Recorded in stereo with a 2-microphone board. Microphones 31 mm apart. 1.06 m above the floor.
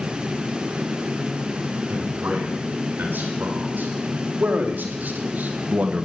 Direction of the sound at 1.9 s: 85° right.